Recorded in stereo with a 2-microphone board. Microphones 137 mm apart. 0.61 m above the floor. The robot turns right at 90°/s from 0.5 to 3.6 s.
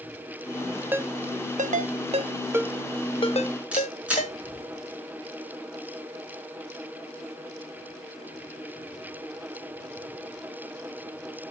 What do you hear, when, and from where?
0.9 s a ringtone: 15° right (ahead or behind), 0.6 m; by 4.4 s 75° left (ahead or behind), 0.6 m
3.7 s a camera shutter: 10° right (ahead or behind), 6 m